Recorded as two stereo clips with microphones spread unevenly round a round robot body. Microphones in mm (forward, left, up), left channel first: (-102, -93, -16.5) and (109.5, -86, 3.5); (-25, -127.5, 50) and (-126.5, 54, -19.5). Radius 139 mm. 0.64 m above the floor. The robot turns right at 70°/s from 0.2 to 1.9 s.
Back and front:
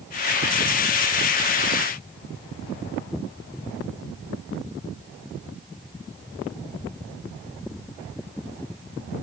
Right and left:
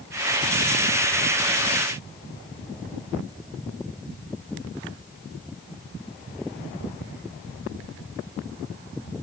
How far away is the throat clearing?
I don't hear throat clearing.